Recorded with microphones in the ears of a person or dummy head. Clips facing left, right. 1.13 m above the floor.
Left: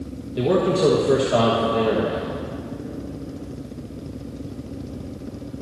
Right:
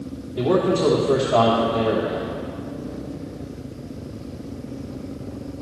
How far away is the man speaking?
About 1.2 m.